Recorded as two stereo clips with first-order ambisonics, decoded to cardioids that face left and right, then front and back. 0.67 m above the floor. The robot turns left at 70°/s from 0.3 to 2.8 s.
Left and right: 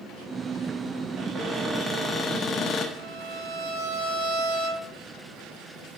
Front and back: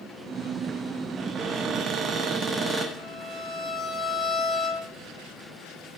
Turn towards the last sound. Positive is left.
turn(degrees=-95)